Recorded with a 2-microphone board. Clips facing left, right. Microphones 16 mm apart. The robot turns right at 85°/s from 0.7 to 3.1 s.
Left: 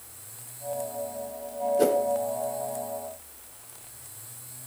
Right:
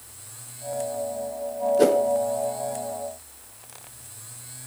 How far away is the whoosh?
About 0.8 m.